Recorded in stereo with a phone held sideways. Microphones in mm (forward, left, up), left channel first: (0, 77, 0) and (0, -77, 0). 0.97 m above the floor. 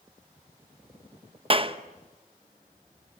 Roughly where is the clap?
Right.